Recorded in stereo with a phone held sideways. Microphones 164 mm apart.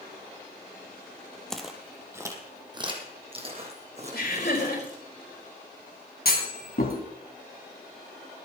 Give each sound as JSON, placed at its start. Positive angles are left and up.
{"t": 1.5, "sound": "footsteps", "side_deg": 5, "distance_m": 1.4}
{"t": 4.1, "sound": "laughter", "side_deg": 70, "distance_m": 5.0}
{"t": 6.2, "sound": "a clunk", "side_deg": 65, "distance_m": 2.0}